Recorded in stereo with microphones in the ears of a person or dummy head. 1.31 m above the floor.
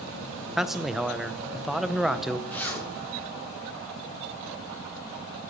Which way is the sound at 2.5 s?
10° left (ahead or behind).